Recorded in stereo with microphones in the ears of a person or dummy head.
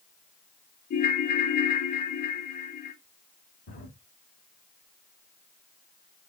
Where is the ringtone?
40° left (ahead or behind), 0.8 m.